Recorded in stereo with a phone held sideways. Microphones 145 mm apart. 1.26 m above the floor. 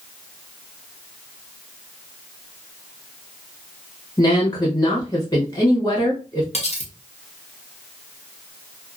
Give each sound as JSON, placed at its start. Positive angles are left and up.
{"t": 4.2, "sound": "a woman speaking", "side_deg": 25, "distance_m": 1.0}
{"t": 6.5, "sound": "cutlery clinking", "side_deg": 45, "distance_m": 0.7}